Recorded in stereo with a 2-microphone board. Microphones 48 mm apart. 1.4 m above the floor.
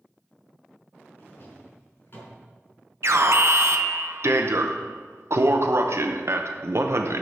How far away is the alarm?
About 0.8 m.